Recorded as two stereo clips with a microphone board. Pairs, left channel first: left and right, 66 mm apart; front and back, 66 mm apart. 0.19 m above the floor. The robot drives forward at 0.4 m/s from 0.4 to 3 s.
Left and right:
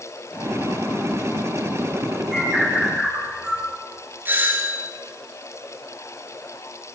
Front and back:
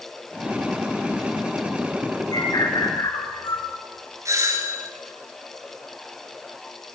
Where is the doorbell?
145° right, 4.5 m.